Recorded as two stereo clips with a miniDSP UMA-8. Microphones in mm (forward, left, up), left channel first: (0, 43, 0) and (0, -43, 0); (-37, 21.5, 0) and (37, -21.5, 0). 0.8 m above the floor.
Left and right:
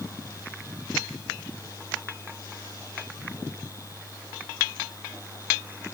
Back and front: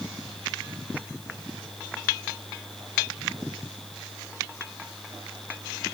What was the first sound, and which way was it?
Only background noise.